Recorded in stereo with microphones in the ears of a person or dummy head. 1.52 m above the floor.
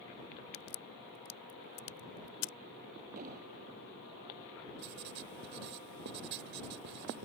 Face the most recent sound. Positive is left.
turn(degrees=-50)  # may be behind; listen again after turning